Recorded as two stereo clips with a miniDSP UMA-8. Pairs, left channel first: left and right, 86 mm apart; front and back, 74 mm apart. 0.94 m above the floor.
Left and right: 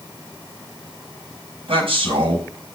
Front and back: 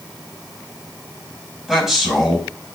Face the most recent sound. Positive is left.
turn(degrees=-95)